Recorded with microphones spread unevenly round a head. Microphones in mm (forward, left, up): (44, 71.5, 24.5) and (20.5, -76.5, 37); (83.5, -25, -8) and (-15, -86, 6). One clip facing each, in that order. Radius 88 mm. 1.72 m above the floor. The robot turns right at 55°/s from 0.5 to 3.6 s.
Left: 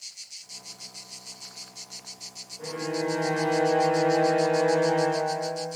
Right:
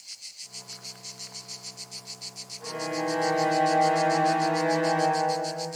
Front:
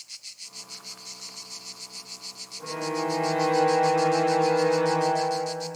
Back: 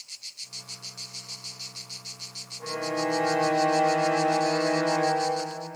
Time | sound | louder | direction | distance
2.6 | a violin | left 1 dB, even | 100° left | 1.0 m